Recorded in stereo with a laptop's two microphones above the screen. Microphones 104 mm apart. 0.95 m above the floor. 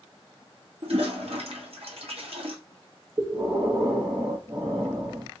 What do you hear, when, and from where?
0.8 s a toilet flushing: 70° right (ahead or behind), 1.0 m
3.2 s breathing: 45° right (ahead or behind), 0.8 m